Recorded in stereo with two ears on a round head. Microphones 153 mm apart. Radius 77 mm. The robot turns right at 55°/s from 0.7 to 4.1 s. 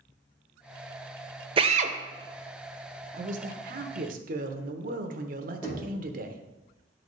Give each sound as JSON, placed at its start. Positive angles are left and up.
{"t": 1.6, "sound": "a drill", "side_deg": -30, "distance_m": 0.7}
{"t": 3.1, "sound": "a man speaking", "azimuth_deg": -125, "distance_m": 0.9}
{"t": 5.6, "sound": "knocking", "side_deg": 20, "distance_m": 3.5}